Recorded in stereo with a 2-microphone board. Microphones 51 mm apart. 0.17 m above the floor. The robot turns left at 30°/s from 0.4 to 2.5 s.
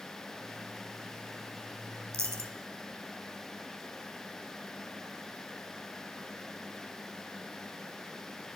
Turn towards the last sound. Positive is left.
turn(degrees=-70)  # may be behind; listen again after turning